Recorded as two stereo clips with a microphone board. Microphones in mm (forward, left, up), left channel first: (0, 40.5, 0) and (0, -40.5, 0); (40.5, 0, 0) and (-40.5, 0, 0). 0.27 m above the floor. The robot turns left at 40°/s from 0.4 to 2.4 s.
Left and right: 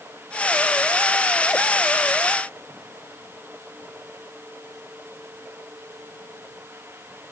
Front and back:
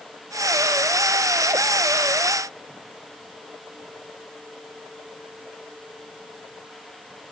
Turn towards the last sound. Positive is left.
No sound to turn to.